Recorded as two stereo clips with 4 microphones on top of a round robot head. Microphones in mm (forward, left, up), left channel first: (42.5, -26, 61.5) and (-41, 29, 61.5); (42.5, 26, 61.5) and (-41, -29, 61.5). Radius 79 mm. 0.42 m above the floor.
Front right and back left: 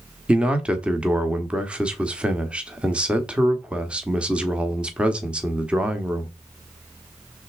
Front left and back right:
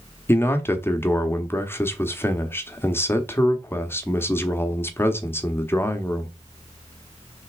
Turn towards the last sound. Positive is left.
turn(degrees=75)